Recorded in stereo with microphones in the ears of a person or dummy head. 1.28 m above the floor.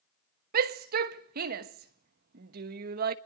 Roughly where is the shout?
Right.